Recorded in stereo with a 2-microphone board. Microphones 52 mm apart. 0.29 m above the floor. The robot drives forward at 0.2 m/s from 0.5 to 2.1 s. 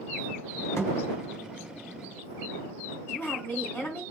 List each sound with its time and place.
0.8 s a thud: 65° left (ahead or behind), 1.7 m
3.1 s a woman speaking: 45° left (ahead or behind), 1.8 m